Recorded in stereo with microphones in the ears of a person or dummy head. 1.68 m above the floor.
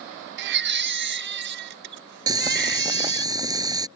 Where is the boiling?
25° right (ahead or behind).